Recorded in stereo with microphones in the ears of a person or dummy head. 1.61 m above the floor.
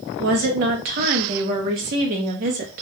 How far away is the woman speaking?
About 0.6 m.